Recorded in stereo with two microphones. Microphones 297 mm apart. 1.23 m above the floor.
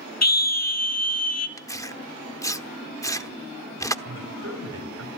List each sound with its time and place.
0.2 s a scream: 60° left (ahead or behind), 0.9 m; by 1.5 s 55° left (ahead or behind), 2.5 m
1.6 s tearing paper: 10° left (ahead or behind), 1.0 m
4.0 s a man speaking: 55° right (ahead or behind), 5.5 m